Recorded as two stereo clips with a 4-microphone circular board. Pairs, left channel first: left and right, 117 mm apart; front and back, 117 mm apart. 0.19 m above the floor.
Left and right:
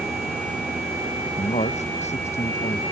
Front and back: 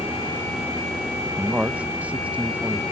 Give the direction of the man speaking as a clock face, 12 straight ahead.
9 o'clock.